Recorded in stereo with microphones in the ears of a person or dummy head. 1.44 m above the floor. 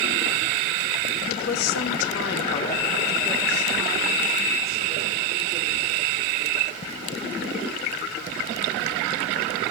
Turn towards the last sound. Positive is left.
turn(degrees=-45)  # may be behind; listen again after turning